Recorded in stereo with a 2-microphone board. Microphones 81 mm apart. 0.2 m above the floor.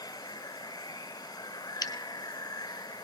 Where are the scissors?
55° left (ahead or behind), 1.0 m.